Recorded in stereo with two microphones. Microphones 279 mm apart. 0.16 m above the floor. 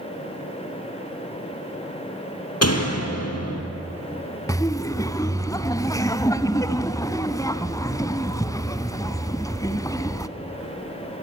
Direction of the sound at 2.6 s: 60° left (ahead or behind).